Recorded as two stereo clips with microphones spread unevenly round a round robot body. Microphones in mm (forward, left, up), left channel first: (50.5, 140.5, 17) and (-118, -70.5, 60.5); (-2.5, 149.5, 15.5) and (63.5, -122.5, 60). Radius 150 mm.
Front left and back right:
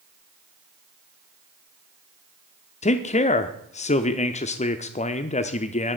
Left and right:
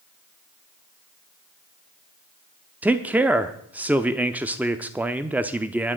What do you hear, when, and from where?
2.8 s a man speaking: 15° left, 0.8 m